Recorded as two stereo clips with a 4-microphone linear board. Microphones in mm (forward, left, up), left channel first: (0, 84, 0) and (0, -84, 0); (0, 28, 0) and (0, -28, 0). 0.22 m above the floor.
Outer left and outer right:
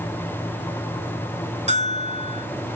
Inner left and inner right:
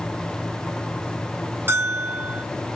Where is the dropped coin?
No dropped coin in this recording.